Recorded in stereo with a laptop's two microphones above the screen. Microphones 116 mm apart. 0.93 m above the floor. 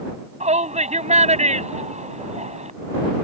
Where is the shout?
85° right.